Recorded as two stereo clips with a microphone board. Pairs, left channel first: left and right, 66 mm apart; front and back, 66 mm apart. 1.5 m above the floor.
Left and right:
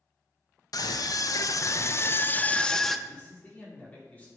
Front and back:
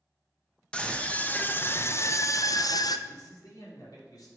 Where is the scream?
75° left, 1.3 m; by 3.0 s straight ahead, 0.8 m.